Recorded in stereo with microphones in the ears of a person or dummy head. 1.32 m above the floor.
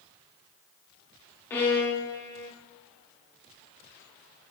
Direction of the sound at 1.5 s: 15° left (ahead or behind).